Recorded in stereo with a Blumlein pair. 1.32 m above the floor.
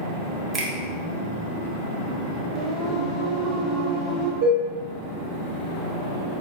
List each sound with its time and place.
0.5 s a finger snap: 25° right, 0.7 m
2.5 s singing: straight ahead, 0.9 m
4.4 s dishes clattering: 55° right, 1.2 m